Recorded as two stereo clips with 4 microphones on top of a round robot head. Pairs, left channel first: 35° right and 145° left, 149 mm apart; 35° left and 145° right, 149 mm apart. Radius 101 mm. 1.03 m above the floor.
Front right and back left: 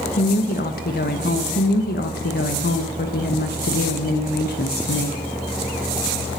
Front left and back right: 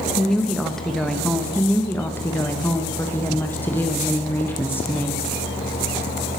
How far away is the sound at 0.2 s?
About 1.1 m.